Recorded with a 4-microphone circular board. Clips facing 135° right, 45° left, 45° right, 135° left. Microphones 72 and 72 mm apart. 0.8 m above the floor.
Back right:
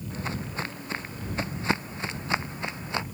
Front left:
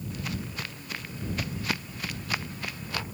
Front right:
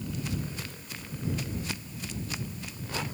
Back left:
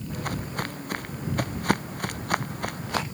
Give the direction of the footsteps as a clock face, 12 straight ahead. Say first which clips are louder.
Back right 4 dB, back left 7 dB; 6 o'clock.